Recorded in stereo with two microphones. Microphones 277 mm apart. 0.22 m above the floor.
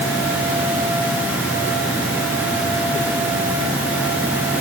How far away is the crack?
No crack in this recording.